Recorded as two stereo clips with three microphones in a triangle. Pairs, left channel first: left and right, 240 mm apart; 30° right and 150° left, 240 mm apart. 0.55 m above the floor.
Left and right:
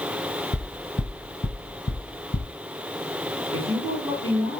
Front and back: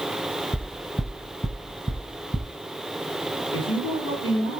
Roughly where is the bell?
I don't hear a bell.